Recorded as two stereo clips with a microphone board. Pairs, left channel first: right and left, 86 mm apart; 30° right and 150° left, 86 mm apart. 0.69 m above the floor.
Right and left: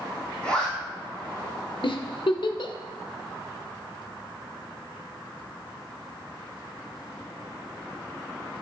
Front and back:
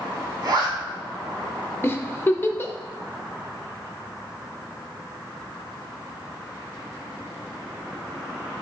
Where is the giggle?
90° right, 0.5 m.